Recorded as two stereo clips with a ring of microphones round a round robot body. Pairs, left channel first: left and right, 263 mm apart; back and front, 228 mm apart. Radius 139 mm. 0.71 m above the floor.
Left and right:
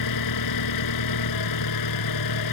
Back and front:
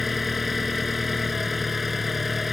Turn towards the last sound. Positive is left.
turn(degrees=90)